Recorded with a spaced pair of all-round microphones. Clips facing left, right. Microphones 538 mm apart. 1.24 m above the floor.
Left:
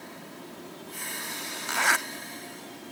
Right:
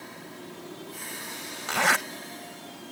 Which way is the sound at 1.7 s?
75° right (ahead or behind).